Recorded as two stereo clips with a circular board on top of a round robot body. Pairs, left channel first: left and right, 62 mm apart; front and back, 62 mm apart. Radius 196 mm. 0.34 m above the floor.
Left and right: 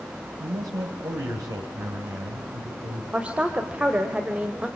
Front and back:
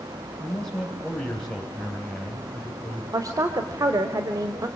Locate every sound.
0.4 s a man speaking: 75° right, 3 m
3.1 s a woman speaking: 160° right, 2 m